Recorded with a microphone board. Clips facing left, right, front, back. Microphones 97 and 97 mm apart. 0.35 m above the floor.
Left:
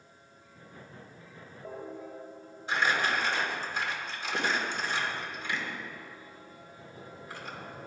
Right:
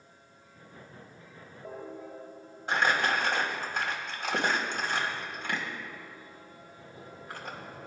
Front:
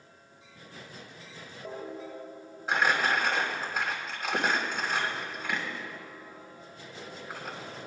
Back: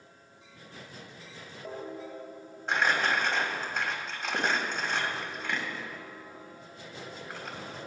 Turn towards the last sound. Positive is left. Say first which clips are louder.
# right 2 dB, front 1 dB
turn(degrees=-85)